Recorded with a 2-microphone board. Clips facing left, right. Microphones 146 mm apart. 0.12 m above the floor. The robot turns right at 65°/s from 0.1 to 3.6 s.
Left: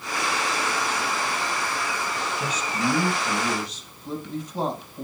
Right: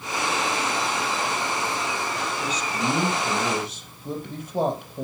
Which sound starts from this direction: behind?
A man speaking, at 2.4 s.